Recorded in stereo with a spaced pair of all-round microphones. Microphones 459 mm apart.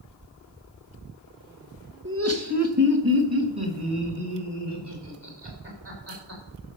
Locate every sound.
2.0 s laughter: 25° right (ahead or behind), 1.4 m; by 6.4 s 65° right (ahead or behind), 6 m